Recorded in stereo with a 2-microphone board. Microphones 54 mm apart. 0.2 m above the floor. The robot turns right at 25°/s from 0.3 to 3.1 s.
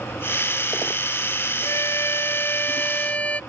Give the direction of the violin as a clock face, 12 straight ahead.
8 o'clock.